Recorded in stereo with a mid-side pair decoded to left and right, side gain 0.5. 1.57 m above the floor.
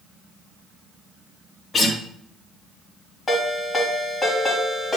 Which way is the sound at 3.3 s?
35° left.